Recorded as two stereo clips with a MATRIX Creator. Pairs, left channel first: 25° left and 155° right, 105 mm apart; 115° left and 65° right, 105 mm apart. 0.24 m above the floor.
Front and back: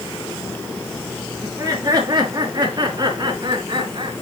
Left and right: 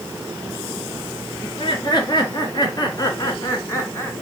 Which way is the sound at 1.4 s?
150° left.